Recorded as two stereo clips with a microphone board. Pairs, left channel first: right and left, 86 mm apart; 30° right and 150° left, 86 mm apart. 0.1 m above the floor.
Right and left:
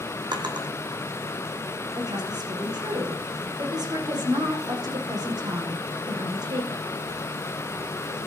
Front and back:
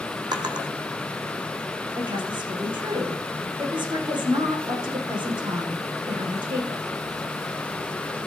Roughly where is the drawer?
Behind left.